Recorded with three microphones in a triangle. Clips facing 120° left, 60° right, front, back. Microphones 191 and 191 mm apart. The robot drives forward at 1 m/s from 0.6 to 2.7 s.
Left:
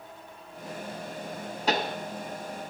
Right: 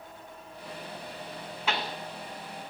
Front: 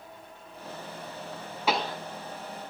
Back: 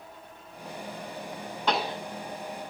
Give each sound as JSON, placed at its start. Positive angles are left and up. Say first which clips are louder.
{"t": 1.7, "sound": "a pop", "louder": "left 5 dB, even", "azimuth_deg": 80, "distance_m": 0.5}